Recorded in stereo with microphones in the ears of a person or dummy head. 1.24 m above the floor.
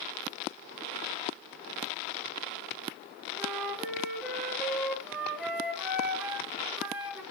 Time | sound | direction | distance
3.4 | a flute | 5° right (ahead or behind) | 2.5 m